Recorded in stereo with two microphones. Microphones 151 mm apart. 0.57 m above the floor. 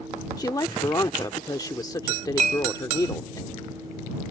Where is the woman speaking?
25° left (ahead or behind).